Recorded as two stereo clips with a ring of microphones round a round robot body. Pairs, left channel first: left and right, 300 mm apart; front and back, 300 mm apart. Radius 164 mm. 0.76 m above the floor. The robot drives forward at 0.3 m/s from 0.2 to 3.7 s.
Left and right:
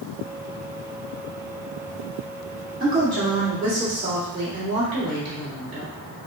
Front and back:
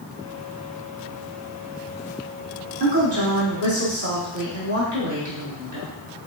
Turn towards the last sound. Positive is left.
turn(degrees=-160)